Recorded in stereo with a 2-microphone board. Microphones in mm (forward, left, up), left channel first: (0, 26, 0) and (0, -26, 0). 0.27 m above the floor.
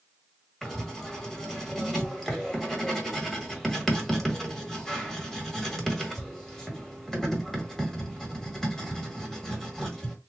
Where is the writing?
5° left (ahead or behind), 1.4 m.